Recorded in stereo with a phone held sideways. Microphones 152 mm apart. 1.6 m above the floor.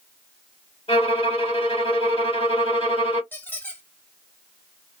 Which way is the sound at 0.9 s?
35° left (ahead or behind).